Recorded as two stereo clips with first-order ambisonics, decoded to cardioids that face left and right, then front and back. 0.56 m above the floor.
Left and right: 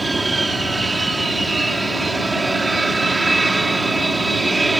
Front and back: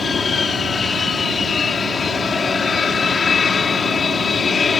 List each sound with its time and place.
0.0 s an aircraft: 35° right